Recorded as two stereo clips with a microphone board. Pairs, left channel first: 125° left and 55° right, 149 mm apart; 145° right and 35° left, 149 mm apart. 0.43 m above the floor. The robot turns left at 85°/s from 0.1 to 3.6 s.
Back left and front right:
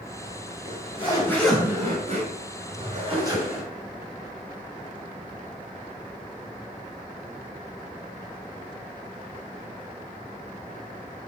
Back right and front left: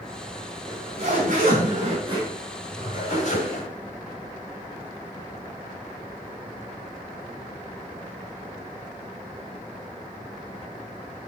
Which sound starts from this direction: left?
A zipper, at 0.7 s.